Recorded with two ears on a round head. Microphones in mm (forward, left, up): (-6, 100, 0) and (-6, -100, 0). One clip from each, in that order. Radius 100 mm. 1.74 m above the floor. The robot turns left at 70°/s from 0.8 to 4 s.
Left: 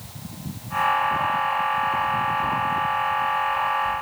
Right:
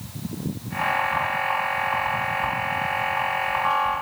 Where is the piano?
I don't hear a piano.